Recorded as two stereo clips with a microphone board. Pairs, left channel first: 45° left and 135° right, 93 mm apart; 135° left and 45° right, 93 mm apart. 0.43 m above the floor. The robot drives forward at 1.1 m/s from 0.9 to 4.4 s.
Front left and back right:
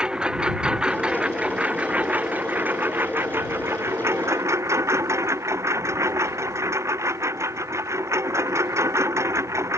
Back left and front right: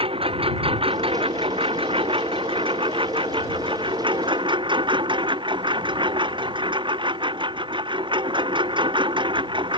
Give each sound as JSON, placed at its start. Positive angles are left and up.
{"t": 0.0, "sound": "a lawn mower", "azimuth_deg": -55}